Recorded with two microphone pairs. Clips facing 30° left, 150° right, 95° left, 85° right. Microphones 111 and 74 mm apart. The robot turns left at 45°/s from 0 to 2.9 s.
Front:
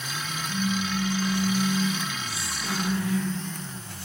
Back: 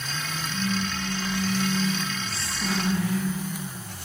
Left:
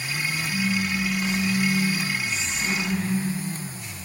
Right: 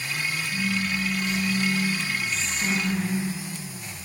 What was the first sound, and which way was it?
A phone buzzing, 60° left.